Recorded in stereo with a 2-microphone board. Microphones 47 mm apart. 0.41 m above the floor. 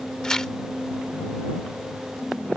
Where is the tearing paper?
15° left (ahead or behind).